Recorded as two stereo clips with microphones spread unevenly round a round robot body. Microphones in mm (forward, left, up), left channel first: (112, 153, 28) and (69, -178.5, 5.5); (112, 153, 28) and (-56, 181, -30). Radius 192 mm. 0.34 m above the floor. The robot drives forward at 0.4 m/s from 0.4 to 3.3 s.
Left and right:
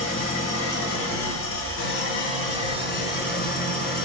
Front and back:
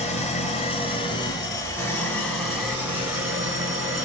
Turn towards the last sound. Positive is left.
turn(degrees=135)